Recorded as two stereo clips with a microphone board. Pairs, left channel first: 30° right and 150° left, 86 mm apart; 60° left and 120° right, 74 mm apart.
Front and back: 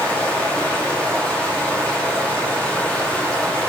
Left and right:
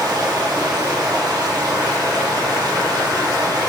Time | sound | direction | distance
0.0 | running water | 105° right | 1.0 m